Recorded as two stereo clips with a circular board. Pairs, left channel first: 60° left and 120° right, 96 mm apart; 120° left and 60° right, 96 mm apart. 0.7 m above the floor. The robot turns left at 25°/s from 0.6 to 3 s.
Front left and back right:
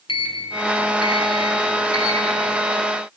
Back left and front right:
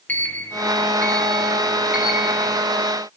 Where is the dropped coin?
I don't hear a dropped coin.